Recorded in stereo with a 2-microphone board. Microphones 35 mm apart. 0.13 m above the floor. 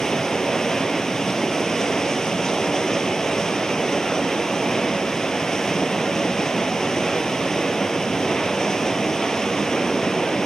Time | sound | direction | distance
0.0 | running water | 15° left (ahead or behind) | 1.0 m